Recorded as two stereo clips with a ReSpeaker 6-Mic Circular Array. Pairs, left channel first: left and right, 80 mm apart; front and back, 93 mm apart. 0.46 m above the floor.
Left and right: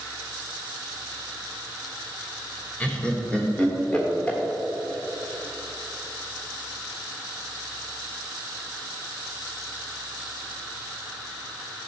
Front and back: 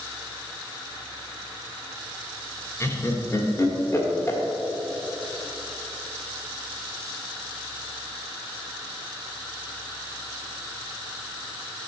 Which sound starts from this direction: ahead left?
Laughter, at 2.8 s.